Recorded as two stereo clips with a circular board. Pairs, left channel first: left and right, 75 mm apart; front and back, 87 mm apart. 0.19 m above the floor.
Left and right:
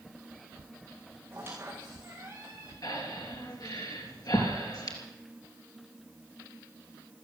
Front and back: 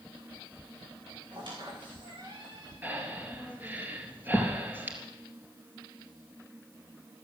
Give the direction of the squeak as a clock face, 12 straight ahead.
5 o'clock.